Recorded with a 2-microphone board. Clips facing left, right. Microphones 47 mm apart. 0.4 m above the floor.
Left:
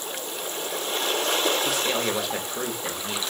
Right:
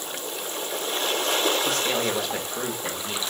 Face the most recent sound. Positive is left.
turn(degrees=5)  # may be behind; listen again after turning